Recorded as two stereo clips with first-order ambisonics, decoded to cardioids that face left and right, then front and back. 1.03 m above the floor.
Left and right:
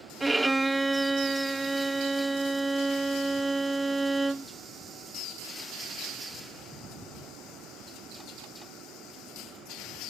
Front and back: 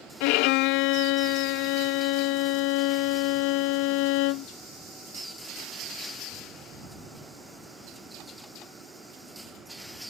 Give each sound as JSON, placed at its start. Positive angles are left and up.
{"t": 0.2, "sound": "a violin", "azimuth_deg": -10}